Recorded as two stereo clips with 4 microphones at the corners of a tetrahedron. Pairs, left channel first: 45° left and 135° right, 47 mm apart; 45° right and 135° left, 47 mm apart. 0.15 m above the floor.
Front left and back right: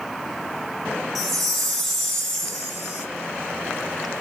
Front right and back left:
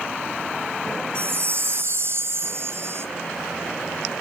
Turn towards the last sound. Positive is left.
turn(degrees=135)